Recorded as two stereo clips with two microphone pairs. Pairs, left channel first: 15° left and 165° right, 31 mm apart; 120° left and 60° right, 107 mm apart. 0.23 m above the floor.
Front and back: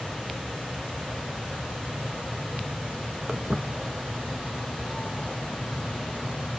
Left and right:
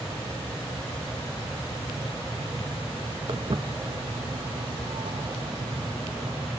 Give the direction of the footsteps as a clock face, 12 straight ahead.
3 o'clock.